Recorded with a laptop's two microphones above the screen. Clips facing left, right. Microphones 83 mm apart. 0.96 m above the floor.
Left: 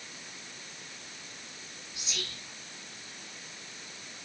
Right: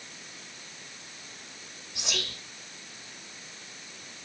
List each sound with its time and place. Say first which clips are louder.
1.9 s whispering: right 6 dB; 75° right (ahead or behind), 1.8 m